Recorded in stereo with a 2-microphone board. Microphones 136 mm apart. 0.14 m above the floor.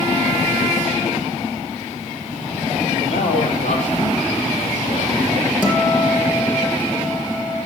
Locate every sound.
3.1 s a man speaking: 65° left (ahead or behind), 4 m; by 5.3 s 75° left (ahead or behind), 5 m
5.6 s a guitar: centre (ahead or behind), 3.5 m